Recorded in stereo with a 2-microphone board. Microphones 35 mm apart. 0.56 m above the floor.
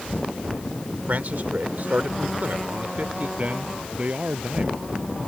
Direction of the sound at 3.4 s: 45° right (ahead or behind).